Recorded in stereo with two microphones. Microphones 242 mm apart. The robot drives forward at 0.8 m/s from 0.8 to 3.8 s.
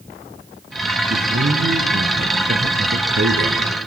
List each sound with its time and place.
1.1 s a man speaking: 55° right (ahead or behind), 3 m; by 3.7 s 60° right (ahead or behind), 2.5 m